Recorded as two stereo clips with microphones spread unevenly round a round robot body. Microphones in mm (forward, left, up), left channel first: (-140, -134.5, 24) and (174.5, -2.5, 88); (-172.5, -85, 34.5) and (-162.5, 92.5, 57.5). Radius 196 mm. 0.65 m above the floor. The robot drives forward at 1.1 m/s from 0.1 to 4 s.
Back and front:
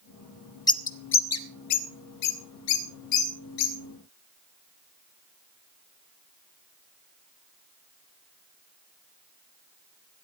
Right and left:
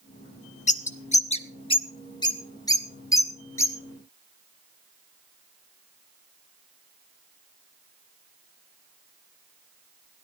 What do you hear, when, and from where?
0.7 s a bird: 90° right, 1.0 m; by 3.7 s 170° right, 3.5 m